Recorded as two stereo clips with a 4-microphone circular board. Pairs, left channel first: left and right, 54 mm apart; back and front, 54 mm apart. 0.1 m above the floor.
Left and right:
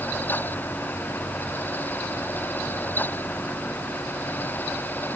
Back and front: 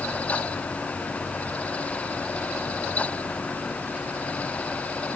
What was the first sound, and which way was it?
Only background noise.